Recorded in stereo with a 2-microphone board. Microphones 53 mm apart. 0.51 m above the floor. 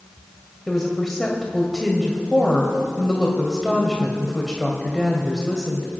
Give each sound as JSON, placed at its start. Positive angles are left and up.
{"t": 0.7, "sound": "a woman speaking", "side_deg": 5, "distance_m": 1.9}